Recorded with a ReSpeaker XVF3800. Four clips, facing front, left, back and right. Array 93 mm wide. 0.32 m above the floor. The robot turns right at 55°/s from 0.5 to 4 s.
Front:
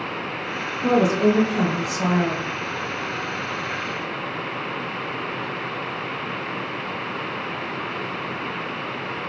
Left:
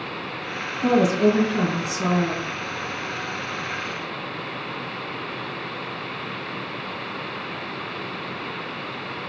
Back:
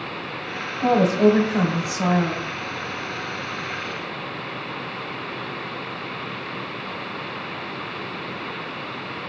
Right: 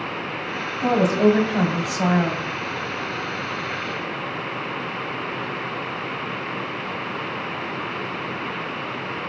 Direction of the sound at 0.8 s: 155° right.